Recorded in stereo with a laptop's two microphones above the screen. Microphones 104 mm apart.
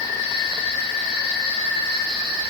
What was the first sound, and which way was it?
Only background noise.